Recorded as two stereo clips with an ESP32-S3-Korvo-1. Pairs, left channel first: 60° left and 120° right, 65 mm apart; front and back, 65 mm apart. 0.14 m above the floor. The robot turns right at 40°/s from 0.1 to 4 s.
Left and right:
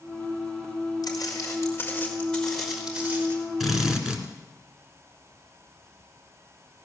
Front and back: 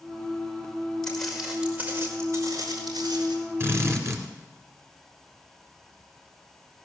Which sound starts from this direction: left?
Footsteps, at 1.0 s.